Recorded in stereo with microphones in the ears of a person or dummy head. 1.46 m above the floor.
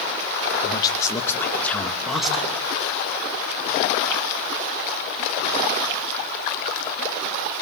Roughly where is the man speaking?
Left.